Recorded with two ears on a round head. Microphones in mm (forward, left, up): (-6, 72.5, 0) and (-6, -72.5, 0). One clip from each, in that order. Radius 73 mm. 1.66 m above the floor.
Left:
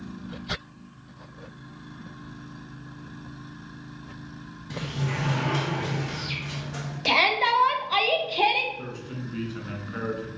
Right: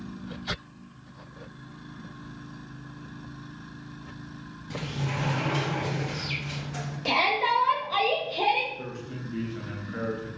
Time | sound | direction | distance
4.7 | a sliding door | 10° left (ahead or behind) | 1.3 m
7.0 | a shout | 30° left (ahead or behind) | 0.6 m
8.8 | a man speaking | 25° left (ahead or behind) | 1.4 m